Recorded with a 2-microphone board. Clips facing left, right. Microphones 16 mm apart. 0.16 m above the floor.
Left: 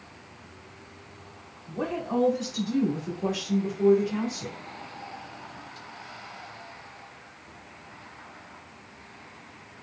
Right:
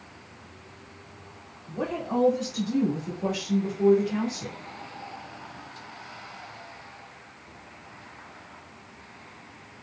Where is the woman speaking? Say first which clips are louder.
Even; 5° left (ahead or behind), 1.8 m; by 4.6 s centre (ahead or behind), 1.2 m.